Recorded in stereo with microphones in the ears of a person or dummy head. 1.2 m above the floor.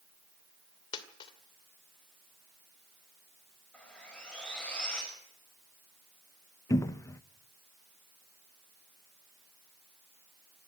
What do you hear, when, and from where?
0.9 s a dropped coin: 25° left (ahead or behind), 1.9 m
3.7 s sawing: 10° left (ahead or behind), 6 m
6.7 s a cupboard door: 25° left (ahead or behind), 0.6 m